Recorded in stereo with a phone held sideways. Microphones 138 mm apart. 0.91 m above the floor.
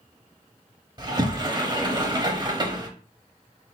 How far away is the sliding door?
About 0.8 m.